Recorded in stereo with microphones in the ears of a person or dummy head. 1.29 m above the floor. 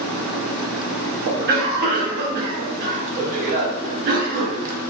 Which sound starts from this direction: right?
A cough, at 1.3 s.